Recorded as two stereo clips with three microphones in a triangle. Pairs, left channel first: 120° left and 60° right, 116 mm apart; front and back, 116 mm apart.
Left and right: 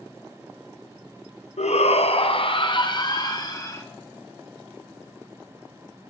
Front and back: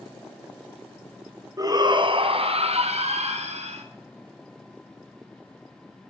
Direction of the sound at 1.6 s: 125° left.